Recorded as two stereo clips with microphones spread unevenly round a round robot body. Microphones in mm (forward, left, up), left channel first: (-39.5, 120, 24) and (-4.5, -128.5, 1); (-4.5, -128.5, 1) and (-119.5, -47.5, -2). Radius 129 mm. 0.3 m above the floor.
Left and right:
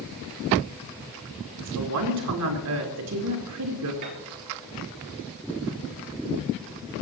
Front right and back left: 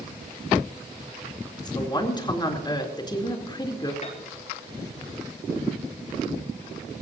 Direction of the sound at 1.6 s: 90° right.